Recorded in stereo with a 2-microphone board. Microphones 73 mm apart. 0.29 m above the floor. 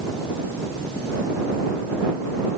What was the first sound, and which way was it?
Only background noise.